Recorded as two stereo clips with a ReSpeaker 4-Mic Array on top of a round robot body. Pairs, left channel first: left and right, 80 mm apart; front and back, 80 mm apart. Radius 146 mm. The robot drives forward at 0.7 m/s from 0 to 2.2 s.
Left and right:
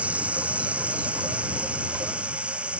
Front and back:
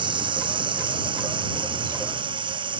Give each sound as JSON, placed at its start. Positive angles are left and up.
{"t": 0.0, "sound": "running water", "azimuth_deg": -165}